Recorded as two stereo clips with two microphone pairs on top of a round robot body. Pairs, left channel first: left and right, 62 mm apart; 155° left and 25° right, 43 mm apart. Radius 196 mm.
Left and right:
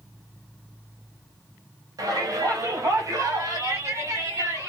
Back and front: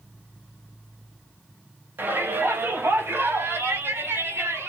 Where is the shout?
65° right, 6 m; by 4.7 s 45° right, 9.5 m.